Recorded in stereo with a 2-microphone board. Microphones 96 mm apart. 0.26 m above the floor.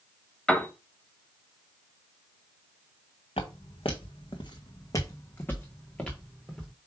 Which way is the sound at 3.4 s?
80° left.